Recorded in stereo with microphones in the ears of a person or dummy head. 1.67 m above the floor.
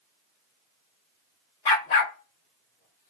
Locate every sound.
1.6 s a dog barking: 25° left (ahead or behind), 1.2 m; by 3.1 s 50° left (ahead or behind), 2.5 m